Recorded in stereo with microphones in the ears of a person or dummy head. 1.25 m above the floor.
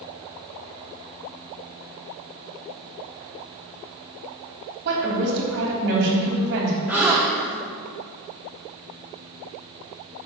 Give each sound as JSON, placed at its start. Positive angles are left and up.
{"t": 4.8, "sound": "a woman speaking", "side_deg": -60, "distance_m": 3.0}
{"t": 6.9, "sound": "a gasp", "side_deg": -5, "distance_m": 0.9}